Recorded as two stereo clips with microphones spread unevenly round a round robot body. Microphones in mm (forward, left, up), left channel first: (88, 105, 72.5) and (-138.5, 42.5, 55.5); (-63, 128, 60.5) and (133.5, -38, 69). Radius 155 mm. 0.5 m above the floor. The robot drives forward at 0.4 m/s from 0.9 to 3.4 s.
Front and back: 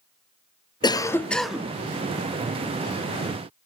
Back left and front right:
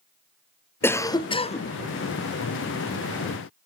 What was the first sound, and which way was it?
A cough, 75° left.